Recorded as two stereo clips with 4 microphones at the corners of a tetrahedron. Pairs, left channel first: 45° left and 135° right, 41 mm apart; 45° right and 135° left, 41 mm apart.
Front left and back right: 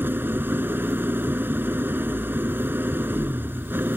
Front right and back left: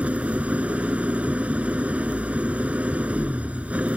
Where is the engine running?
170° right.